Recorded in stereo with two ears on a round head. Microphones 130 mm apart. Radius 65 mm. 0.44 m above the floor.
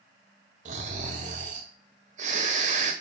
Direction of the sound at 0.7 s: 55° right (ahead or behind).